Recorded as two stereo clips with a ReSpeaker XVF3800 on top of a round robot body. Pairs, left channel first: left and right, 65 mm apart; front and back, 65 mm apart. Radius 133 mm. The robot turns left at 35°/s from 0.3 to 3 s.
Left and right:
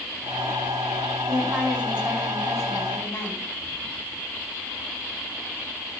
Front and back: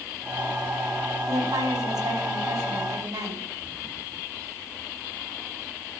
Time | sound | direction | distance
1.3 | a woman speaking | 145° right | 4.5 m